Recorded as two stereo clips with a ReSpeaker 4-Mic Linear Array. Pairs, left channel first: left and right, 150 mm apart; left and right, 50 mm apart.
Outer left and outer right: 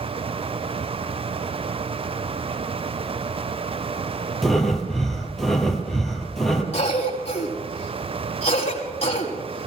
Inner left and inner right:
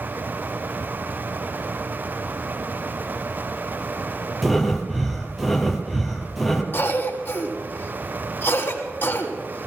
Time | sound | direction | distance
4.4 | breathing | centre (ahead or behind) | 2.0 m
6.7 | a cough | 45° left (ahead or behind) | 5.5 m